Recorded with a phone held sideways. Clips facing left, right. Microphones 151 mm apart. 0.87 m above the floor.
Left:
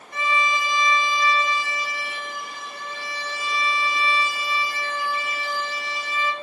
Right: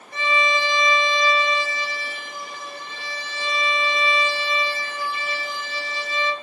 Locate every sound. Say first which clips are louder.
0.1 s a violin: right 2 dB; 35° right (ahead or behind), 1.0 m